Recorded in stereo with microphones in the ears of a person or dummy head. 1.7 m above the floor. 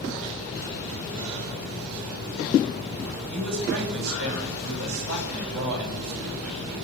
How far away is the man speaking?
About 8 m.